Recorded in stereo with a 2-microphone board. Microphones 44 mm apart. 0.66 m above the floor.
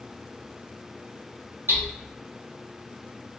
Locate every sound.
1.7 s hammering: 80° right, 2 m